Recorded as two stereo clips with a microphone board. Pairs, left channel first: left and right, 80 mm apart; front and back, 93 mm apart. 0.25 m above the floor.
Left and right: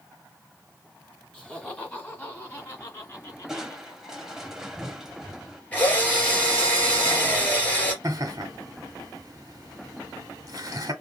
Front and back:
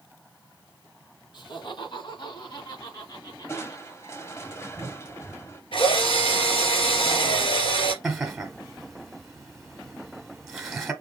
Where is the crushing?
10° right, 1.0 m.